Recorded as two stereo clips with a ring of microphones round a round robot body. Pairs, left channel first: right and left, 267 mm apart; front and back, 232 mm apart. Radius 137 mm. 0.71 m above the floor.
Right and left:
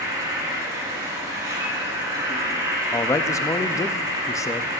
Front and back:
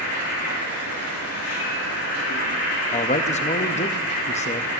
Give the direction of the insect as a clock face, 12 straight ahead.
12 o'clock.